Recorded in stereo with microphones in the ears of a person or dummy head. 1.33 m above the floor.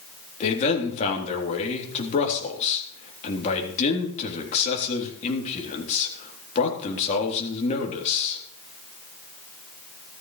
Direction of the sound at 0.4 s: 35° left (ahead or behind).